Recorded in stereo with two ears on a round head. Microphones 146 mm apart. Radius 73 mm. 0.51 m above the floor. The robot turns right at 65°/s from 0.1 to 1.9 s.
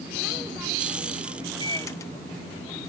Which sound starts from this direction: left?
A microwave, at 1.6 s.